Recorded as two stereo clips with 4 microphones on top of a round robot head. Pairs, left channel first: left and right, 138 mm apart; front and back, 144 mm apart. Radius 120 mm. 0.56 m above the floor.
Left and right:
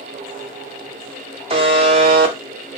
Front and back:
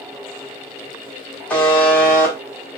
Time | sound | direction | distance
1.5 | a buzzer | 75° right | 0.8 m